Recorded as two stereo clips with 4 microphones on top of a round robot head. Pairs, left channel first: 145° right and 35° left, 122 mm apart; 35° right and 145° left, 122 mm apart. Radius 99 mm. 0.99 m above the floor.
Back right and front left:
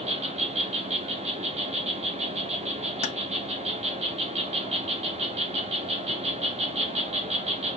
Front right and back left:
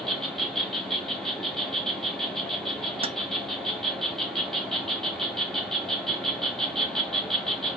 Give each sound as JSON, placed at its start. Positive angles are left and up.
{"t": 0.0, "sound": "an insect", "azimuth_deg": 55, "distance_m": 1.1}
{"t": 3.0, "sound": "keys jangling", "azimuth_deg": -175, "distance_m": 0.5}